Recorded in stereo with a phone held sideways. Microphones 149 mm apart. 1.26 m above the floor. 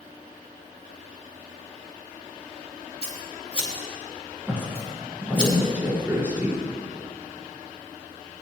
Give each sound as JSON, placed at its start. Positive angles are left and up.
{"t": 3.0, "sound": "scissors", "side_deg": -40, "distance_m": 3.5}
{"t": 4.5, "sound": "a woman speaking", "side_deg": -15, "distance_m": 5.0}